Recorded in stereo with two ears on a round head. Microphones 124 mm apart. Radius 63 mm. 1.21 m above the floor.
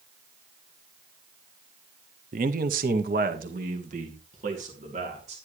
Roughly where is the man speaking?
Right.